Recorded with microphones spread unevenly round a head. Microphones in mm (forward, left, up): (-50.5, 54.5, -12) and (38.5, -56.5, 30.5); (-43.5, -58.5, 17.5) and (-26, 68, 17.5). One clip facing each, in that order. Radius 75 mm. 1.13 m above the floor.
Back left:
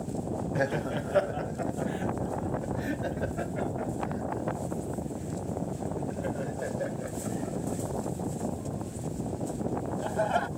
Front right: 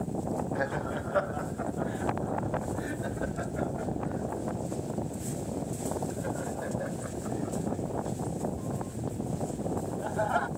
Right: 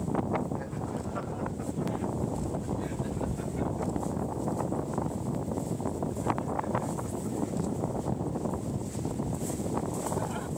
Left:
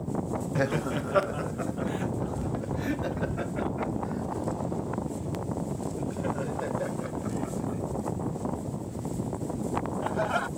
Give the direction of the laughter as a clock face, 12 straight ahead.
10 o'clock.